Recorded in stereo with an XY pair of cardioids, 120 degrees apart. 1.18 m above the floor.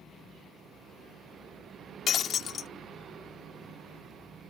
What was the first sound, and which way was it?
Breaking glass, 55° left.